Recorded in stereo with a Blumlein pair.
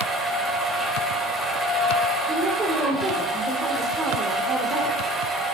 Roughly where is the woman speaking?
Ahead.